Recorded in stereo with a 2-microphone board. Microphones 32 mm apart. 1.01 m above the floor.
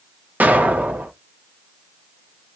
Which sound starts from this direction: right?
An explosion, at 0.4 s.